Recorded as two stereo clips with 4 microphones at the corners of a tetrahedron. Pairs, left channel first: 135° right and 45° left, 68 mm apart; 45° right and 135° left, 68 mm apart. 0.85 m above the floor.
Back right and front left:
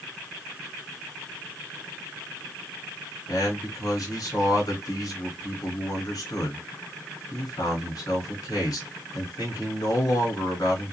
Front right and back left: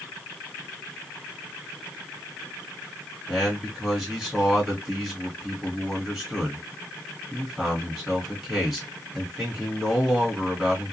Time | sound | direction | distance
3.3 | a man speaking | 140° right | 1.7 m